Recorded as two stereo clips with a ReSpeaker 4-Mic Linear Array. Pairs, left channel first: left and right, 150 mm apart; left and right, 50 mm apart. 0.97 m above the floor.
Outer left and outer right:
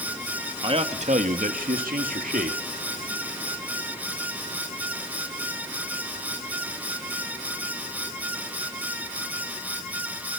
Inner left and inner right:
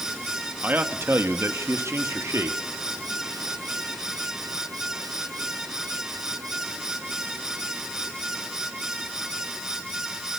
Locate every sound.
0.6 s a man speaking: 35° right (ahead or behind), 1.8 m; by 2.6 s 65° right (ahead or behind), 2.5 m